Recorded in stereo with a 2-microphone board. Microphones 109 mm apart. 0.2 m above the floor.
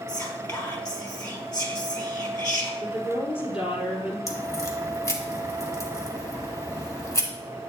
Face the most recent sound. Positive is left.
turn(degrees=30)  # may be behind; listen again after turning